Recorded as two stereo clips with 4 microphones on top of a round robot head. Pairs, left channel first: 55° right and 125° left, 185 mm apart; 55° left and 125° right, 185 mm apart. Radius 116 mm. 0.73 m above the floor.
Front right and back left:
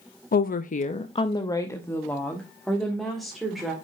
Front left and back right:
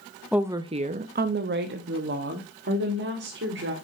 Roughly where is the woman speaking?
Ahead right.